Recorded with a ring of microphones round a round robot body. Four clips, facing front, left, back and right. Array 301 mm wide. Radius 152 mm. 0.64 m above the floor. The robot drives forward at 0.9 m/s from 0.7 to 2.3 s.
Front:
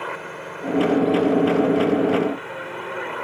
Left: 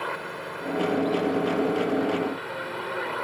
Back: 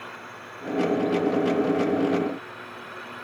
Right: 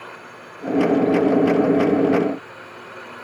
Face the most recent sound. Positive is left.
turn(degrees=25)